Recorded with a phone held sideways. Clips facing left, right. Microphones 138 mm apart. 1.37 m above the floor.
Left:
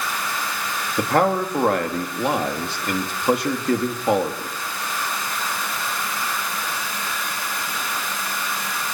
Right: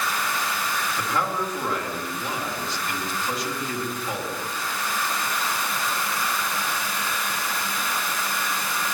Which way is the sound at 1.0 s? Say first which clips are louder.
Left 10 dB; 65° left (ahead or behind).